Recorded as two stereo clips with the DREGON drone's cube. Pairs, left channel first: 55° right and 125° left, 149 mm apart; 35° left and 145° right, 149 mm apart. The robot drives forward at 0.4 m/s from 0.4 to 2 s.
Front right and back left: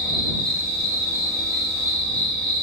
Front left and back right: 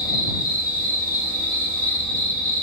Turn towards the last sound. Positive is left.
turn(degrees=105)